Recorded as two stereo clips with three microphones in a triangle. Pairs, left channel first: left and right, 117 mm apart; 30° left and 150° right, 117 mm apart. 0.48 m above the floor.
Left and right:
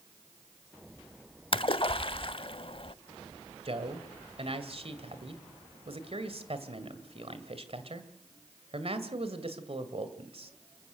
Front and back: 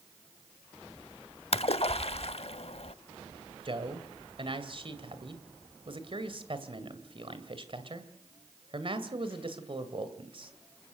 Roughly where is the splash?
Ahead left.